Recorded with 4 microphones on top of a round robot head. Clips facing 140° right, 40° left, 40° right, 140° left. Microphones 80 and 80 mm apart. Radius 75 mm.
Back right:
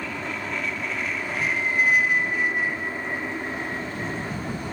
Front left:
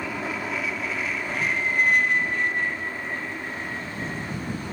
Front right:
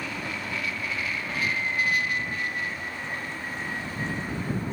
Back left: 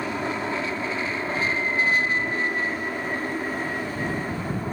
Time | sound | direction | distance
0.0 | an aircraft | 115° left | ?